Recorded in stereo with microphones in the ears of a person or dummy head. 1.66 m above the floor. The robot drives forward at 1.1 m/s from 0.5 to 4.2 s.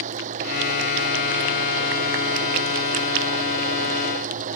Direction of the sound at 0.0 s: 45° right (ahead or behind).